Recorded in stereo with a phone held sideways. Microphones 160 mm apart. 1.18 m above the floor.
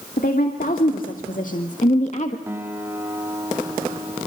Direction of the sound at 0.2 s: 65° left (ahead or behind).